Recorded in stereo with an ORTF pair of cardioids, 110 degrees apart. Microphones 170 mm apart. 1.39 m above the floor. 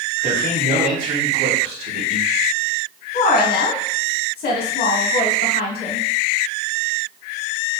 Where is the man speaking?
40° right, 2.0 m; by 2.2 s 65° right, 2.5 m.